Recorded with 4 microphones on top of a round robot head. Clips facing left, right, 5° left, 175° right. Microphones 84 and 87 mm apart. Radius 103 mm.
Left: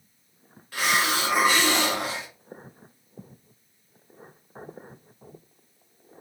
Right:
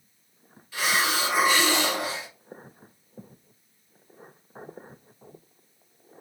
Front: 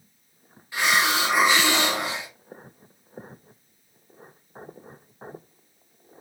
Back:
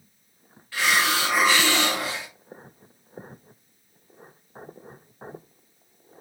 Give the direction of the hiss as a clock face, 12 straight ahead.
10 o'clock.